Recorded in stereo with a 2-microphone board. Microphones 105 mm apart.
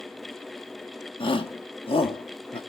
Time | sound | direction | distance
1.2 | a shout | 60° left (ahead or behind) | 1.5 m